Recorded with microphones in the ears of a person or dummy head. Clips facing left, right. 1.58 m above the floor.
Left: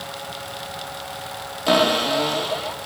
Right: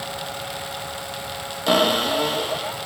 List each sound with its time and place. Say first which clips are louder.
1.7 s a cupboard door: left 1 dB; 5° right (ahead or behind), 1.4 m